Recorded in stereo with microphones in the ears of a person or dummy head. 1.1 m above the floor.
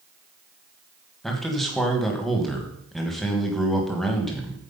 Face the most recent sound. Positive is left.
turn(degrees=5)  # may be behind; listen again after turning